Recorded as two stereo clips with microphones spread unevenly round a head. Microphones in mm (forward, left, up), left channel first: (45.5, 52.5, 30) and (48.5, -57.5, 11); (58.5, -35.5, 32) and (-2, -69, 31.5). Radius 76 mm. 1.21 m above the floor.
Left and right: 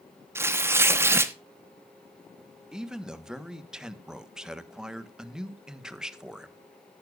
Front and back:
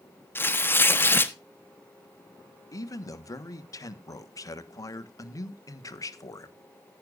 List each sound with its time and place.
0.3 s tearing paper: 30° right, 1.1 m
2.7 s a man speaking: 5° right, 1.4 m